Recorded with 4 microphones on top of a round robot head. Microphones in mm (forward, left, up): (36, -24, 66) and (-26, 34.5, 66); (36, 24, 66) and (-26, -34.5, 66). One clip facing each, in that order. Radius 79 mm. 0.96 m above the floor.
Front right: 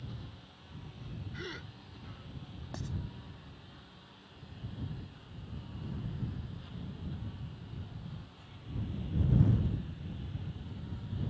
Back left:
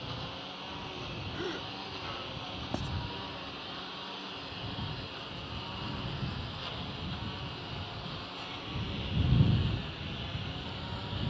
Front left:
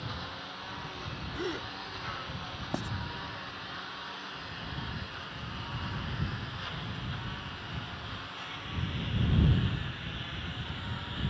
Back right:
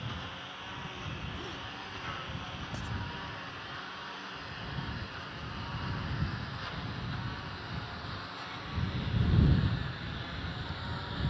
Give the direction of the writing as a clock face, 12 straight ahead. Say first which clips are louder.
Back left 6 dB, front left 10 dB; 9 o'clock.